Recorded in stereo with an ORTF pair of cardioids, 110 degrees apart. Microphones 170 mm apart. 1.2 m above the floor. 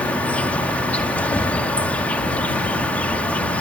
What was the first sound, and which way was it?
An insect, 10° left.